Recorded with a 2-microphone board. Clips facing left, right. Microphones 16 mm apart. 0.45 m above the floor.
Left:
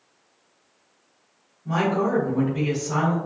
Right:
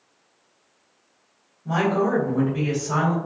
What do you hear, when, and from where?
1.6 s a woman speaking: 40° right (ahead or behind), 1.5 m; by 3.2 s 30° right (ahead or behind), 1.6 m